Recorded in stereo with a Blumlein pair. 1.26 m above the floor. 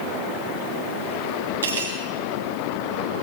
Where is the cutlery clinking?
65° right, 2.5 m.